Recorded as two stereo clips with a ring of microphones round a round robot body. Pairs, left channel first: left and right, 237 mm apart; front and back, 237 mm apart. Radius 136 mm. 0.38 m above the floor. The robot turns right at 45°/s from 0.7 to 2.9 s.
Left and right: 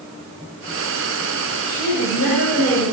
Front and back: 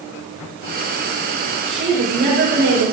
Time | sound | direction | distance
1.7 | a woman speaking | 105° left | 5 m